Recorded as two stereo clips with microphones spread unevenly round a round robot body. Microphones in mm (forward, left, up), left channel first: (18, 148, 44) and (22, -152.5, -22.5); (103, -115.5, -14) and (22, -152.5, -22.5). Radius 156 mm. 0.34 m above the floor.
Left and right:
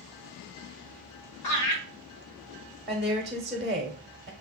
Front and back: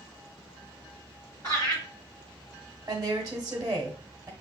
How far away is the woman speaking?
About 0.9 m.